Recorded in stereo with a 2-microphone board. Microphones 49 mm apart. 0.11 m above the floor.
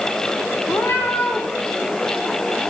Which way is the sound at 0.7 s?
55° left (ahead or behind).